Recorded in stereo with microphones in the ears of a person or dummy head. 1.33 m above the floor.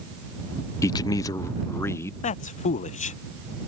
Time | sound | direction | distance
0.8 | a man speaking | 20° left (ahead or behind) | ?
2.2 | a man speaking | 40° left (ahead or behind) | ?